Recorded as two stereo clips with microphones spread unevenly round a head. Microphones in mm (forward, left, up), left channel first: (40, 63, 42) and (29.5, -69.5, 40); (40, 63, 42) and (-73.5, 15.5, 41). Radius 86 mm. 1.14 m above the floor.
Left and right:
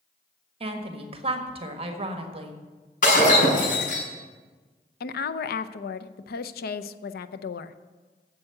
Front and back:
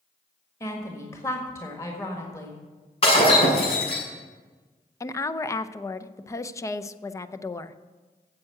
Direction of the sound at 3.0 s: 65° left.